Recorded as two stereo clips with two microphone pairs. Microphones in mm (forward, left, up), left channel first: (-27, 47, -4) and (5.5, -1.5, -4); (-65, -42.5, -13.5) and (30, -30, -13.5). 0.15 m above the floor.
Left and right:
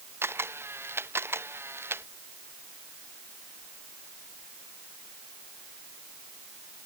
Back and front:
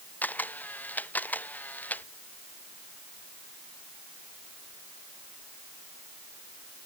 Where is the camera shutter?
100° right.